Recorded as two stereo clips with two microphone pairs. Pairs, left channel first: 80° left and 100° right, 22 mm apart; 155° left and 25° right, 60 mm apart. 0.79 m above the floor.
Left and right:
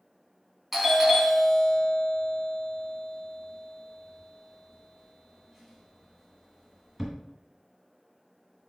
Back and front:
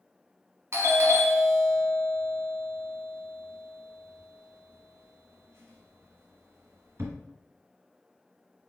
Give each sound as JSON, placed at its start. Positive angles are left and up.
{"t": 0.7, "sound": "a doorbell", "azimuth_deg": -35, "distance_m": 1.2}